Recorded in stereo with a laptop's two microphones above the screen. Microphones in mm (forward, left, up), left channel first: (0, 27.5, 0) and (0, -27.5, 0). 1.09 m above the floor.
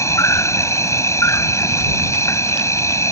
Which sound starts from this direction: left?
An insect, at 0.0 s.